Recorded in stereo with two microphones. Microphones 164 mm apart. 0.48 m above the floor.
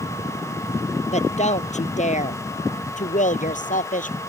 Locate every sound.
1.1 s a woman speaking: 45° left (ahead or behind); by 4.2 s 55° left (ahead or behind)